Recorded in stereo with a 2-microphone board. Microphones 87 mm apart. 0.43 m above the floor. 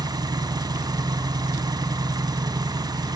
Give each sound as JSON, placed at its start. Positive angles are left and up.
{"t": 0.0, "sound": "an engine running", "side_deg": -60, "distance_m": 1.3}